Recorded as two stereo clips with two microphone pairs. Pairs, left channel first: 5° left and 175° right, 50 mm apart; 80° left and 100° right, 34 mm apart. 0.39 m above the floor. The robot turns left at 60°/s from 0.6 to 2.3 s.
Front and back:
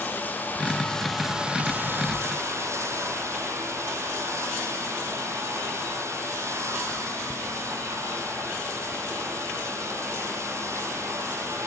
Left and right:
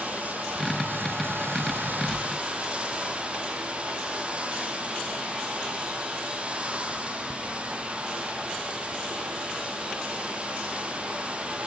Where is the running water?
50° right, 2.0 m; by 11.7 s 150° right, 2.0 m.